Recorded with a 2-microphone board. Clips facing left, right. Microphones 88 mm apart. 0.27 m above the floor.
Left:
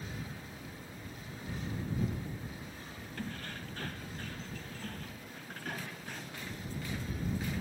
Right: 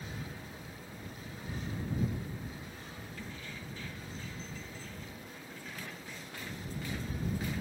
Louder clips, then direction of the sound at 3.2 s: Left 6 dB; 60° left (ahead or behind).